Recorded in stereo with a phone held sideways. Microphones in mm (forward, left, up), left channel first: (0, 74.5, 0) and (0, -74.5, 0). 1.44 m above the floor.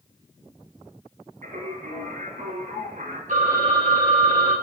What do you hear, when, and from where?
1.4 s singing: 60° right (ahead or behind), 2.5 m
3.3 s a phone ringing: 55° right (ahead or behind), 1.6 m